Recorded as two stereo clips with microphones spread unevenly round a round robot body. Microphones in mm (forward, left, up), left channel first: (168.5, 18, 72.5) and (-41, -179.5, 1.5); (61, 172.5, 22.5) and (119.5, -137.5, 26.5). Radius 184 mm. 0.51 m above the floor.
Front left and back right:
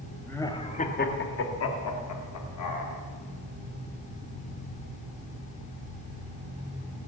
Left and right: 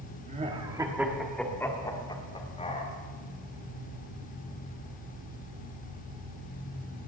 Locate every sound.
0.3 s laughter: 70° right, 1.3 m; by 2.9 s 35° left, 2.5 m